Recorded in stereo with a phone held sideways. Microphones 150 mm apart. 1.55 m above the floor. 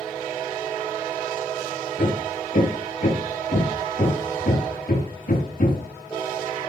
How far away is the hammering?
About 7 m.